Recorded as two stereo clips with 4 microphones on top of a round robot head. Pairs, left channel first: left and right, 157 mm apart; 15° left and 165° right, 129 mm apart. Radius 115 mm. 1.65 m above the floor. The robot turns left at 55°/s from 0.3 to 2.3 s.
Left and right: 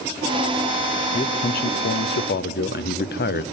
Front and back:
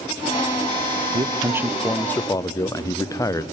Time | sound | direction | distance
1.1 | a man speaking | 145° left | 0.8 m